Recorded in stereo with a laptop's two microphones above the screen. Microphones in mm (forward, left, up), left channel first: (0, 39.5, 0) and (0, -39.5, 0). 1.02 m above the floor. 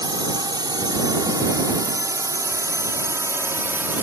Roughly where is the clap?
No clap in this recording.